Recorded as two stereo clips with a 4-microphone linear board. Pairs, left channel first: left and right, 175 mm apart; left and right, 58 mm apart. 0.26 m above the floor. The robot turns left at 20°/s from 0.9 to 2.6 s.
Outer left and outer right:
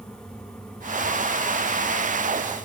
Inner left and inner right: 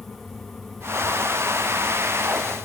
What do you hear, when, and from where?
Only background noise.